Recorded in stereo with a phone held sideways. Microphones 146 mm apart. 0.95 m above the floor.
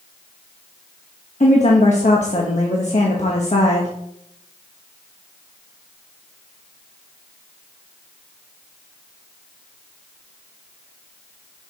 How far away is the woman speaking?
About 1.1 m.